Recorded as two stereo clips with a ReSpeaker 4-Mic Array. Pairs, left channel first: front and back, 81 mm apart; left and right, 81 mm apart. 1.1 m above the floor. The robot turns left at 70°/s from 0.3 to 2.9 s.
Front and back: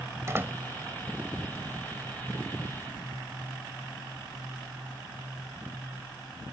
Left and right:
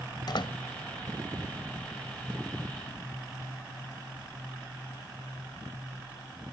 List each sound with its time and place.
0.3 s a door slam: 120° left; by 0.6 s 100° left